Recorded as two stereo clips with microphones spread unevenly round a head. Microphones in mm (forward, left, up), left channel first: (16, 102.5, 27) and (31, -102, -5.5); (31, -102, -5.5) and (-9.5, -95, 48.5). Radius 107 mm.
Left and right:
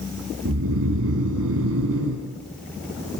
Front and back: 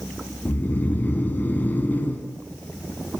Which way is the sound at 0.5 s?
70° right.